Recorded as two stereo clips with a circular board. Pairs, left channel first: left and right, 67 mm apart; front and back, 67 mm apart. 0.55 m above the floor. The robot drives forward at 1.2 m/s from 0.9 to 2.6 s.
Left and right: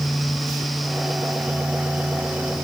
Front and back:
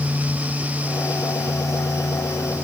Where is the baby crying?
No baby crying in this recording.